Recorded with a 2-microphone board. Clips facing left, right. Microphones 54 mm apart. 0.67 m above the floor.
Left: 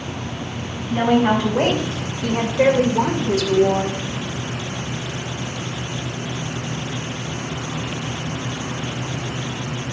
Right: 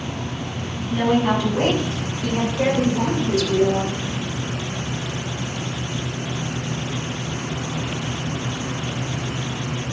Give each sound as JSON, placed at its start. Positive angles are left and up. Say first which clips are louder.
{"t": 0.9, "sound": "a woman speaking", "louder": "left 2 dB", "side_deg": 50, "distance_m": 3.5}